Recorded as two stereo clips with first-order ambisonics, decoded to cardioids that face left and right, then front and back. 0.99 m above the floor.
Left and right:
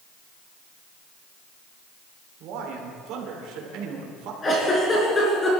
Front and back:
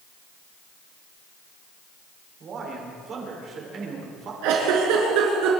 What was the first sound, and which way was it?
A man speaking, 125° right.